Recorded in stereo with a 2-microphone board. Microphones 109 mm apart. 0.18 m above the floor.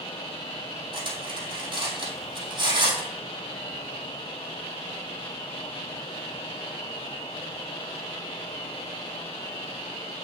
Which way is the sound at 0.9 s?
45° right (ahead or behind).